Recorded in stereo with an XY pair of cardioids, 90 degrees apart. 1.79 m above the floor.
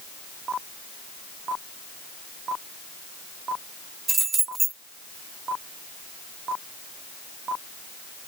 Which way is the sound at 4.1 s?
55° right.